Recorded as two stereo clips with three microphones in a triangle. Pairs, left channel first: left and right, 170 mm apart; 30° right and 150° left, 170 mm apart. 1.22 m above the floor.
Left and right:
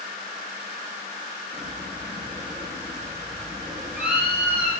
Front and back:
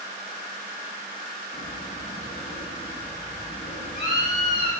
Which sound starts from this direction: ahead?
A bird, at 1.5 s.